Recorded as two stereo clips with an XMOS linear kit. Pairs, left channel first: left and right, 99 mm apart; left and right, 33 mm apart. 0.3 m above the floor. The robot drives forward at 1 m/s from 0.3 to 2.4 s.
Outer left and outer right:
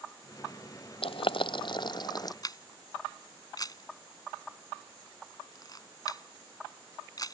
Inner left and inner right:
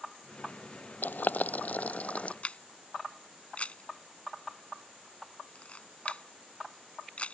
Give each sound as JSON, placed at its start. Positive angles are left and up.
{"t": 1.0, "sound": "boiling", "side_deg": 75}
{"t": 2.4, "sound": "a camera shutter", "side_deg": 40}